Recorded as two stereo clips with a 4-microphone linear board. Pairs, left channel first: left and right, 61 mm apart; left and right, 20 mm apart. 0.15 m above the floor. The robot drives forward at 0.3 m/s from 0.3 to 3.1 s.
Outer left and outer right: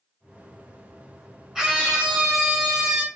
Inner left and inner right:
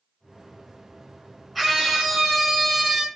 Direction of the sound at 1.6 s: 10° right (ahead or behind).